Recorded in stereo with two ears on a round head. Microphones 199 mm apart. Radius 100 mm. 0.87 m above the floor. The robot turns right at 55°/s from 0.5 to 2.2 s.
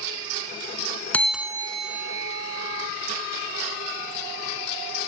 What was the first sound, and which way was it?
A bell, 170° left.